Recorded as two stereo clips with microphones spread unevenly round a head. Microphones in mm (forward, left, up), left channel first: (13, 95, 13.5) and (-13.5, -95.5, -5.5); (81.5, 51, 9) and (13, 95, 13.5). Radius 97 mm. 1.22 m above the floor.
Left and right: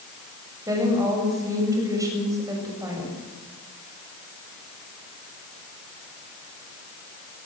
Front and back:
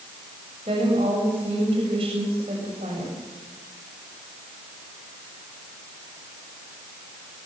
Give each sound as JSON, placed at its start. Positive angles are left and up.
{"t": 0.7, "sound": "a woman speaking", "azimuth_deg": -175, "distance_m": 7.0}